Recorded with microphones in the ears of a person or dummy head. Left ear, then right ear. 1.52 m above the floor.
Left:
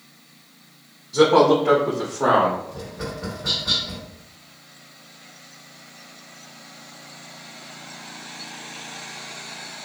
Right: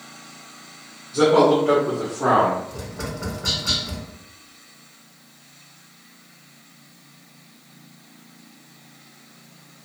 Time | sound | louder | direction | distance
1.1 | a man speaking | left 1 dB | 50° left (ahead or behind) | 0.9 m
2.7 | tapping | even | 80° right | 1.6 m